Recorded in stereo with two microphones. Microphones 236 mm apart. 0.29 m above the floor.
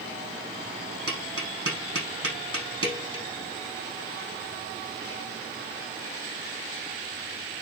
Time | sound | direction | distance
1.1 | tapping | 70° right (ahead or behind) | 7 m